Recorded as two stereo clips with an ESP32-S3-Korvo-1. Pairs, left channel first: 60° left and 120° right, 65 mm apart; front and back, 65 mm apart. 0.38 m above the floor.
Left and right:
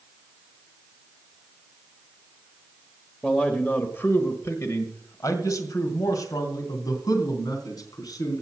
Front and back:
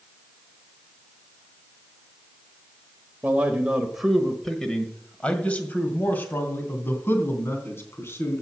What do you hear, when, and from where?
3.2 s a man speaking: 125° left, 1.3 m; by 8.4 s 50° left, 3.5 m